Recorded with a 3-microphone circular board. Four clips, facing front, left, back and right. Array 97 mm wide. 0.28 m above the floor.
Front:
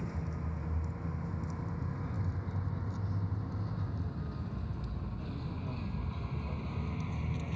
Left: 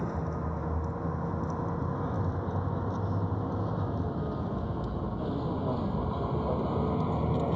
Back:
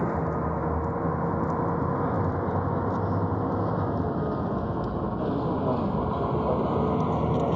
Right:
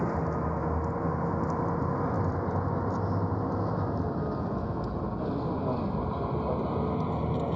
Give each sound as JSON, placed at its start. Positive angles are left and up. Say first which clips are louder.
{"t": 0.0, "sound": "a vehicle", "louder": "right 4 dB, back 15 dB", "azimuth_deg": -160}